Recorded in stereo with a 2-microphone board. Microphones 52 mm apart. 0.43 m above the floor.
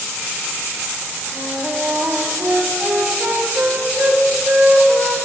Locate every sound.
1.3 s a flute: 45° right (ahead or behind), 2 m